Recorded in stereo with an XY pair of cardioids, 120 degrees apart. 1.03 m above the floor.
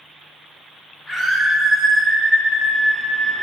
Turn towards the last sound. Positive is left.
turn(degrees=-65)